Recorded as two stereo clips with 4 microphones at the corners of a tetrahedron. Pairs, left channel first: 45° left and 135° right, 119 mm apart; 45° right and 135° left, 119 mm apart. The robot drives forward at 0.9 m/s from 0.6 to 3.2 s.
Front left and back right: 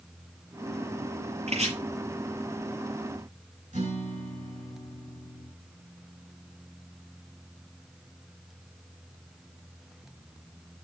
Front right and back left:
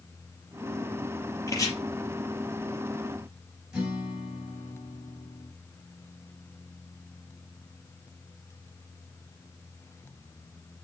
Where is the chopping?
105° right, 6 m; by 1.7 s 110° right, 6 m.